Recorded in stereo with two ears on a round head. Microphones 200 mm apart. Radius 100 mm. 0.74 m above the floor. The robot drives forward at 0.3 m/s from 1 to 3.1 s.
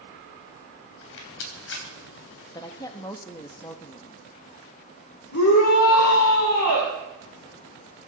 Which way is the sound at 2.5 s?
20° left (ahead or behind).